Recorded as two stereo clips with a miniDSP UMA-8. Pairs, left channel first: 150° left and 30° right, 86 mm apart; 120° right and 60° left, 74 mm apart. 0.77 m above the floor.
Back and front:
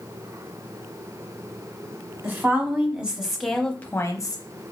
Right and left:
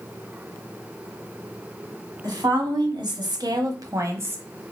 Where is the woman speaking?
35° left, 1.4 m; by 4.4 s 120° left, 0.7 m.